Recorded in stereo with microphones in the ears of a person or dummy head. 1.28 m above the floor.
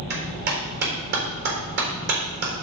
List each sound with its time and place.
0.1 s a clap: 60° right (ahead or behind), 3.5 m